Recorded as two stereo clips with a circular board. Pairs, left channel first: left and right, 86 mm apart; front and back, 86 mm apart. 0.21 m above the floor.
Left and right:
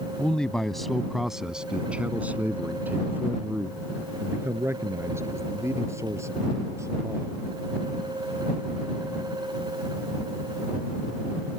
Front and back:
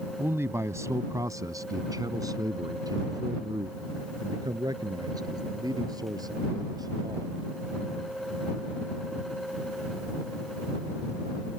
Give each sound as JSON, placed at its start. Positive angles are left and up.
{"t": 0.2, "sound": "a man speaking", "azimuth_deg": 155}